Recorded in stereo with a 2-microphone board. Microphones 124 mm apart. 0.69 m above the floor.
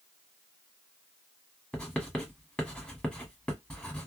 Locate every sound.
1.7 s writing: 10° left (ahead or behind), 1.6 m